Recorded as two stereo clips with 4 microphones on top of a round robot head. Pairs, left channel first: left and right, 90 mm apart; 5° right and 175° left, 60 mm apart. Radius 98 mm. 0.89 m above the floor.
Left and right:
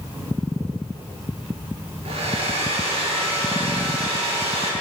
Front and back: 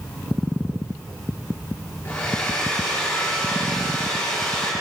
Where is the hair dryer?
70° right, 9 m.